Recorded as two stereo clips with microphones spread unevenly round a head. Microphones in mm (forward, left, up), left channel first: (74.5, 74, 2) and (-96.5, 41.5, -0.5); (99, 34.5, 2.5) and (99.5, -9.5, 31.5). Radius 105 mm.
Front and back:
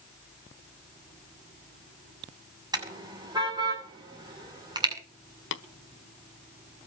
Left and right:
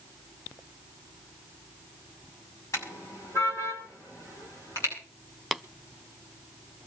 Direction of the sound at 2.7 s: 125° left.